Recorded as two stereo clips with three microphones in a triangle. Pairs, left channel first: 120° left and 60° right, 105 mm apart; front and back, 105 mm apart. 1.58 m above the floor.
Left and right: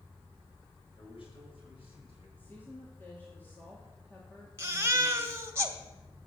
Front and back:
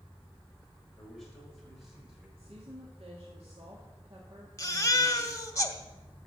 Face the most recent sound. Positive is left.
turn(degrees=-20)